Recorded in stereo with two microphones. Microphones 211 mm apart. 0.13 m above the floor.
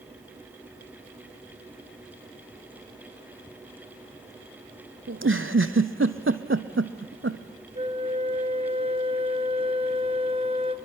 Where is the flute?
30° right (ahead or behind), 0.8 m.